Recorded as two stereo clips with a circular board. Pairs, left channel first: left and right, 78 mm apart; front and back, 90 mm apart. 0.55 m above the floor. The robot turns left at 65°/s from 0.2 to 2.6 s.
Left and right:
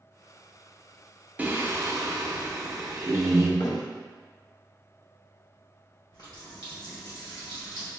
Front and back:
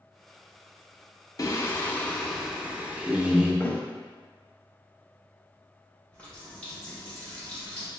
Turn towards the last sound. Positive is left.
turn(degrees=75)